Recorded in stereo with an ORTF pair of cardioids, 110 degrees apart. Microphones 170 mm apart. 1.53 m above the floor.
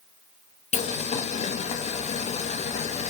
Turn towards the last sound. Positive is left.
turn(degrees=45)